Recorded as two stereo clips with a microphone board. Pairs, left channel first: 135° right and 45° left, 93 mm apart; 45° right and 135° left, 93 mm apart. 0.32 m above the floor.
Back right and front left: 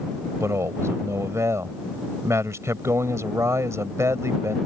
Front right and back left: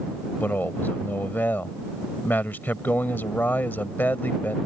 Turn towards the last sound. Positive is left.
turn(degrees=10)